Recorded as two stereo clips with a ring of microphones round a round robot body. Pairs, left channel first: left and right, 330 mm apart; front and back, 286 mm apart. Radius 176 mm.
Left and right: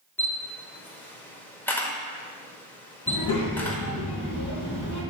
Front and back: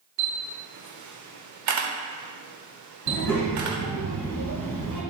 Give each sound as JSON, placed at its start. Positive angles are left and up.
{"t": 0.2, "sound": "a camera shutter", "azimuth_deg": 175, "distance_m": 1.0}
{"t": 3.1, "sound": "a child speaking", "azimuth_deg": 165, "distance_m": 3.0}